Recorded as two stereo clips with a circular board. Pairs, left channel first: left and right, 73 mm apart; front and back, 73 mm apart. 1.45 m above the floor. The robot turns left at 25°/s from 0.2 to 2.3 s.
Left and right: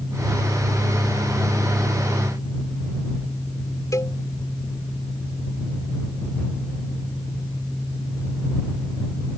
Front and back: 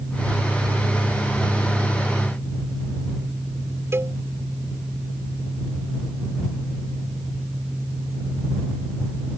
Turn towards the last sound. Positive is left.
turn(degrees=130)